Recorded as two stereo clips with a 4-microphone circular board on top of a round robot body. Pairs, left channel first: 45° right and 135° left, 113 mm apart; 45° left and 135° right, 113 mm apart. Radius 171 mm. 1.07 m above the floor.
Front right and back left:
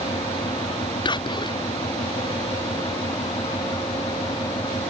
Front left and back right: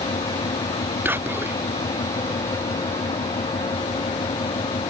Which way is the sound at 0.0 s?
10° left.